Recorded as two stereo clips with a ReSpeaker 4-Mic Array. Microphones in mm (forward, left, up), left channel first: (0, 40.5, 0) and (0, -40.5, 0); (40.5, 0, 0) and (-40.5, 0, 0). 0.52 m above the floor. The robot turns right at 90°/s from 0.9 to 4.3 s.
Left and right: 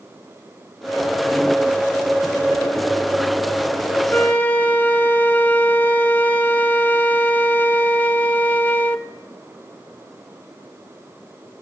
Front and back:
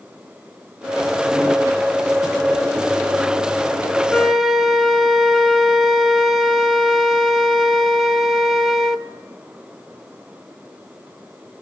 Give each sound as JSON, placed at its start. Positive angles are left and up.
{"t": 4.1, "sound": "a flute", "azimuth_deg": 80, "distance_m": 0.6}